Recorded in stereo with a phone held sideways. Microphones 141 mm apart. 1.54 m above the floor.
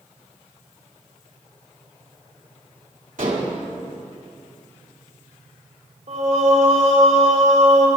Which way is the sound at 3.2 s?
70° right (ahead or behind).